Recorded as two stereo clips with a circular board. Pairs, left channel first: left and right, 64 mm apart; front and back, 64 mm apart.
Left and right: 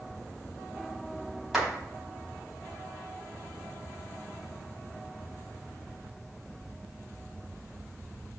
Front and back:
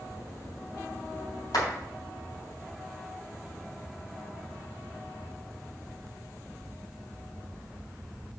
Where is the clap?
5° right, 4 m.